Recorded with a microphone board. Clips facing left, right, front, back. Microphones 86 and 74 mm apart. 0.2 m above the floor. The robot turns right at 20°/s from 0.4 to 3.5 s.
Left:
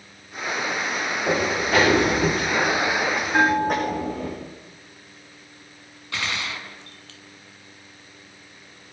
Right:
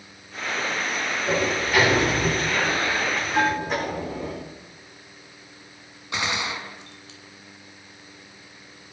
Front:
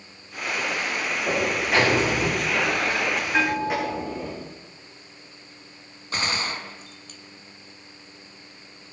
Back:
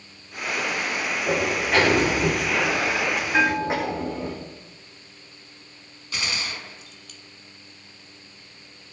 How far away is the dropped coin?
No dropped coin in this recording.